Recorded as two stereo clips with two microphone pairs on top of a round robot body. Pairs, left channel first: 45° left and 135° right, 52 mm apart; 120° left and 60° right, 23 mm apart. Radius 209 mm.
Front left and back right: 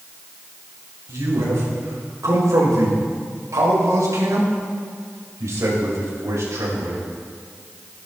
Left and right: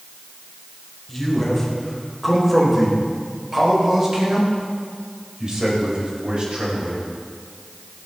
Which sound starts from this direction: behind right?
A man speaking, at 1.1 s.